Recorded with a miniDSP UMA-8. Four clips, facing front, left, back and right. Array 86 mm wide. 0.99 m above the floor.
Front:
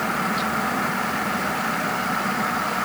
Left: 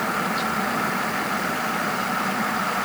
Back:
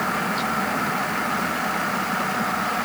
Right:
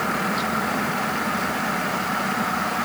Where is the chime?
No chime in this recording.